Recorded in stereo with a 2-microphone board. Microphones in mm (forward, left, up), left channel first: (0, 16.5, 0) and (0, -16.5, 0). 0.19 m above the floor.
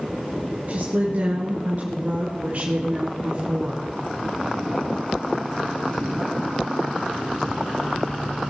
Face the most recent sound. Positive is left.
turn(degrees=-35)  # may be behind; listen again after turning